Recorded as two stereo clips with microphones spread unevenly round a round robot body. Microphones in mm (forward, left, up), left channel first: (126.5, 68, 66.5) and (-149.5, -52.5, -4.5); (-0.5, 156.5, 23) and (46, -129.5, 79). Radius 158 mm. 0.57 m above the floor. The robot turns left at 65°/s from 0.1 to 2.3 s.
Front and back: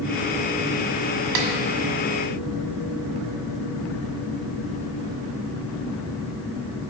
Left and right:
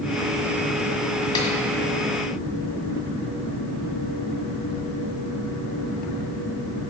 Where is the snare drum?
Straight behind, 1.7 m; by 1.5 s 170° left, 1.7 m.